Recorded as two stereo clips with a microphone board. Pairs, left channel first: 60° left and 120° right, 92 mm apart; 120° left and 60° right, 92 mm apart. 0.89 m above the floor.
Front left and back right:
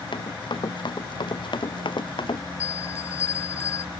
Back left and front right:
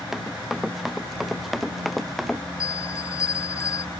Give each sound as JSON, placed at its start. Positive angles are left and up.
{"t": 0.1, "sound": "running footsteps", "azimuth_deg": 25}
{"t": 2.6, "sound": "a bell", "azimuth_deg": 100}